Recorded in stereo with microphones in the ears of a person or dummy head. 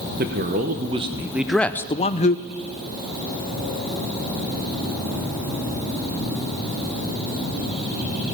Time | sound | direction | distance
0.2 | a man speaking | 50° right (ahead or behind) | 0.9 m